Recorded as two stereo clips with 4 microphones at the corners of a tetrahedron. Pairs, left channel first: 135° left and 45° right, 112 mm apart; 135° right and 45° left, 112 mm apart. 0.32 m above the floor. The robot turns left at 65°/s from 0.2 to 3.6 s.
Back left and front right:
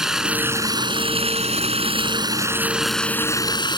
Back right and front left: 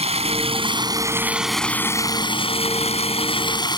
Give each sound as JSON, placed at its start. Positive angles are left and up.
{"t": 0.0, "sound": "running water", "azimuth_deg": 40}